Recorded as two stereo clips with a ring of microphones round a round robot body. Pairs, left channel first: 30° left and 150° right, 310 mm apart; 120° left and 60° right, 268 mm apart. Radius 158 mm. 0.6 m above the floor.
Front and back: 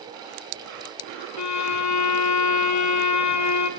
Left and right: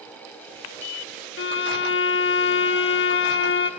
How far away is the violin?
About 0.8 m.